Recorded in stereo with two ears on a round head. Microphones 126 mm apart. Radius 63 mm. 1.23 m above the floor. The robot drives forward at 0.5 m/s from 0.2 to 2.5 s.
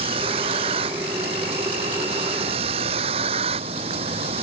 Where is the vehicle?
40° right (ahead or behind).